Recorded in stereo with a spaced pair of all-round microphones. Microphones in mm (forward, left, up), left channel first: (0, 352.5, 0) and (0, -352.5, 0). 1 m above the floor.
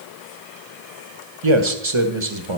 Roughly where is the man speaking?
Right.